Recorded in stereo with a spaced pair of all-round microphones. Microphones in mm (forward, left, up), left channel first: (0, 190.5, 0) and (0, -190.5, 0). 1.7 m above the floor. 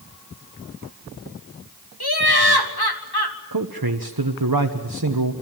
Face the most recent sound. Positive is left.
turn(degrees=-65)  # may be behind; listen again after turning